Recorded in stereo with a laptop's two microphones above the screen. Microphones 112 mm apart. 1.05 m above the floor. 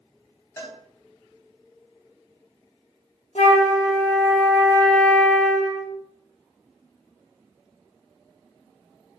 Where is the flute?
55° left (ahead or behind), 1.2 m.